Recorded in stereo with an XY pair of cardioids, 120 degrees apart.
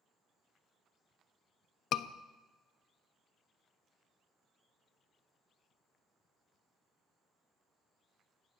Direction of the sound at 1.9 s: 65° left.